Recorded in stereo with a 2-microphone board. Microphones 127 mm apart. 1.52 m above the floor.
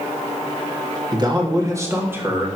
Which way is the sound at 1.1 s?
35° right (ahead or behind).